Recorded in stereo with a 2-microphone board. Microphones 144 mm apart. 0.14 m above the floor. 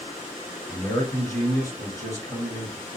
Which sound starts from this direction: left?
A man speaking, at 0.7 s.